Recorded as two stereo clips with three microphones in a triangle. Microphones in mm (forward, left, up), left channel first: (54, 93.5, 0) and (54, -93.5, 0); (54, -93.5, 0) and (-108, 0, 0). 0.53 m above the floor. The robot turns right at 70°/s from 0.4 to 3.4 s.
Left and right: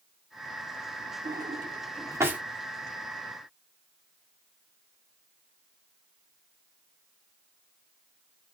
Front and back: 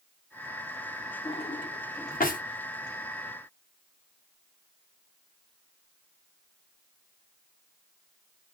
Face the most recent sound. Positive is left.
turn(degrees=65)